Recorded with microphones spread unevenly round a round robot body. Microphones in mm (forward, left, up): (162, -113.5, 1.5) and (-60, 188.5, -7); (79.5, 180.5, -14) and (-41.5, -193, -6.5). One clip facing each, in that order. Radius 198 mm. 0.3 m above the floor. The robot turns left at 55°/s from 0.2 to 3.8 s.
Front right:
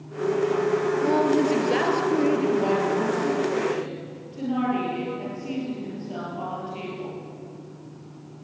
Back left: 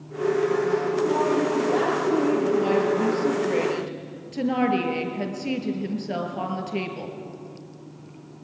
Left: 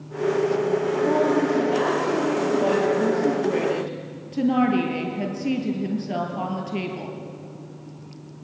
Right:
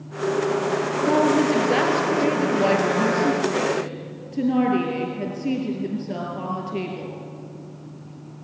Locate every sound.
1.0 s a woman speaking: 55° right, 5 m; by 7.2 s 150° left, 5 m